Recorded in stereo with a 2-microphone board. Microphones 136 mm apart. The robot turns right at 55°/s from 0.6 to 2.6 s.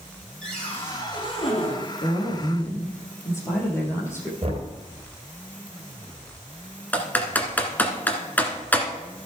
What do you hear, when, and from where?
0.4 s a cupboard door: 5° left, 3.5 m; by 1.8 s 70° left, 3.5 m
2.0 s a woman speaking: 125° left, 3.5 m; by 4.3 s 160° left, 3.5 m
4.4 s knocking: 50° right (ahead or behind), 2.5 m
6.9 s typing on a keyboard: 15° left (ahead or behind), 1.5 m